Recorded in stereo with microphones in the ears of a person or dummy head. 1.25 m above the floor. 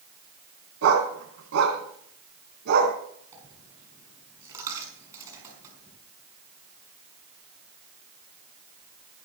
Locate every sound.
0.8 s a dog barking: 75° right (ahead or behind), 4 m; by 3.0 s 60° right (ahead or behind), 4 m
3.3 s a dropped coin: 15° right (ahead or behind), 5.5 m